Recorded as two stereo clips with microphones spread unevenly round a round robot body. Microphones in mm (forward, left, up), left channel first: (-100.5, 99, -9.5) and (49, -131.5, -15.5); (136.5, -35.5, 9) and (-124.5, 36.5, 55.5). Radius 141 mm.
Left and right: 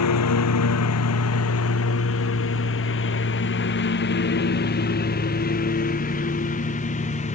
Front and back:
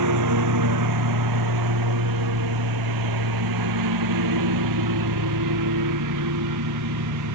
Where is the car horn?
No car horn in this recording.